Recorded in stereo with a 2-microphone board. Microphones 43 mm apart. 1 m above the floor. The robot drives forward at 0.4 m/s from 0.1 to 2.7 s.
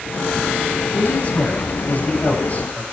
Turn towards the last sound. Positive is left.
turn(degrees=35)  # may be behind; listen again after turning